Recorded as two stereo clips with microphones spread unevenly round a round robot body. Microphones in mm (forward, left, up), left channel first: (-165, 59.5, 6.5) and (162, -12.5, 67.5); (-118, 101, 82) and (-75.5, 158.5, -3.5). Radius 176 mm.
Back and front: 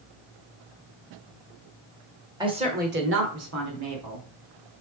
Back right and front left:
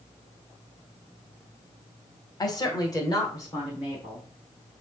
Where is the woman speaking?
75° left, 1.2 m; by 4.2 s 15° right, 1.6 m.